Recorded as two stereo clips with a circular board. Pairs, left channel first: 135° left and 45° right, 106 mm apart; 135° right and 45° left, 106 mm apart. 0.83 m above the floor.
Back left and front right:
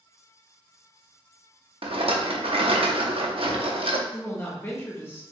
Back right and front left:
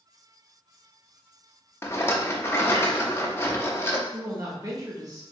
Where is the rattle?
70° right, 0.6 m.